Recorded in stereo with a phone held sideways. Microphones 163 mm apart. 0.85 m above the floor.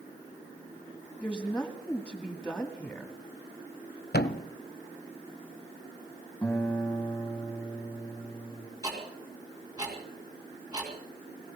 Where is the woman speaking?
5° left (ahead or behind), 2 m.